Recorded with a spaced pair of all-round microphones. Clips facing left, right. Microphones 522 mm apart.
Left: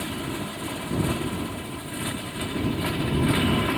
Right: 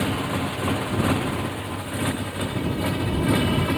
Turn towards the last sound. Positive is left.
turn(degrees=-55)  # may be behind; listen again after turning